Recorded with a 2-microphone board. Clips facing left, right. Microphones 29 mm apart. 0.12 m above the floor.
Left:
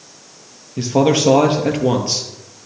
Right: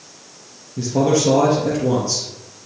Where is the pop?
No pop in this recording.